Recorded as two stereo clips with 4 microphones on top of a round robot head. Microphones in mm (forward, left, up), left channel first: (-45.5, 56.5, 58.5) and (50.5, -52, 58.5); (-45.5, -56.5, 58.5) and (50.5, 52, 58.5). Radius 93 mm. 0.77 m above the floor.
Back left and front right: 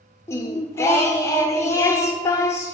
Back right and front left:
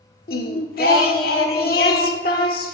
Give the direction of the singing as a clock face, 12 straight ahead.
5 o'clock.